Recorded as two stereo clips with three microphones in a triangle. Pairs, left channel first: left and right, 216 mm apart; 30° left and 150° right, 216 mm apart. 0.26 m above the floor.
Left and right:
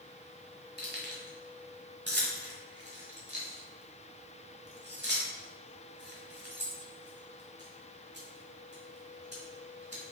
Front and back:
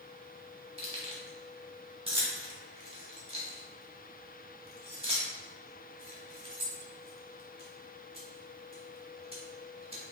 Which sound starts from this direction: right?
Keys jangling, at 0.8 s.